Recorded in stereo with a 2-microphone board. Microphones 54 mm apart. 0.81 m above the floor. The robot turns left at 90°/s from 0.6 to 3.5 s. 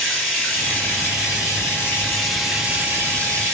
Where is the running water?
165° left, 1.9 m; by 3.5 s 100° right, 1.9 m.